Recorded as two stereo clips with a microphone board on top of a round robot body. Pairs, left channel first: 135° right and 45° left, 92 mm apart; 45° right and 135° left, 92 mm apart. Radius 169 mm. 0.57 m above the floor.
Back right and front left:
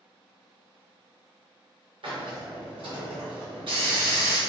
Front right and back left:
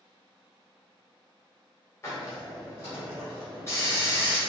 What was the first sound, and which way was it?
A hiss, 20° left.